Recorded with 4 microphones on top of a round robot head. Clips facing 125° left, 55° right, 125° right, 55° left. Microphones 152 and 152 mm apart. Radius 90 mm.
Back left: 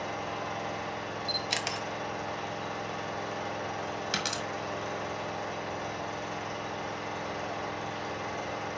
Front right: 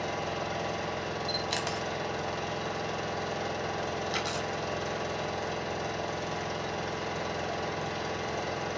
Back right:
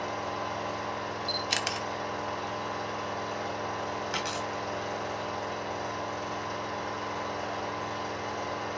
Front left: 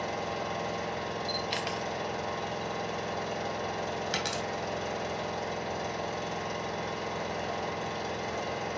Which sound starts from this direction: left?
A dropped coin, at 4.1 s.